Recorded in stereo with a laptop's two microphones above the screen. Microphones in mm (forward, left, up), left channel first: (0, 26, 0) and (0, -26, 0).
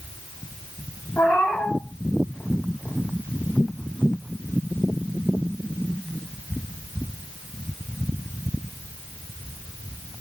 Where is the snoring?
I don't hear snoring.